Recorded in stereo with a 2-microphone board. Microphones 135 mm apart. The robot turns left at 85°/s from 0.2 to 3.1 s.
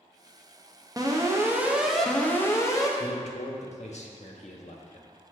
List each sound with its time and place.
1.0 s an alarm: 25° right (ahead or behind), 0.8 m; by 2.9 s 25° left (ahead or behind), 0.8 m
3.0 s a man speaking: 65° left (ahead or behind), 0.8 m; by 5.1 s 60° left (ahead or behind), 0.8 m